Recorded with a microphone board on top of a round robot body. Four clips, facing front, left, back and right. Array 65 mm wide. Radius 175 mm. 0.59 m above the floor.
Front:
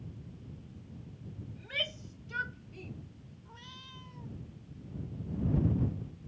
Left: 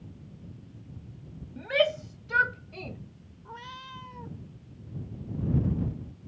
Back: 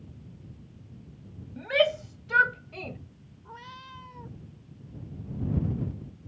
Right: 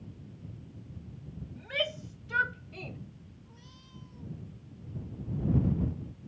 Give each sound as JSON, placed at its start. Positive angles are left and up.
{"t": 1.6, "sound": "a shout", "azimuth_deg": 150}
{"t": 3.5, "sound": "a cat meowing", "azimuth_deg": 125}